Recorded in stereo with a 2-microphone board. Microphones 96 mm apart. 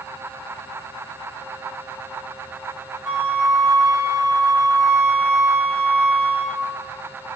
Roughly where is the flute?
Centre.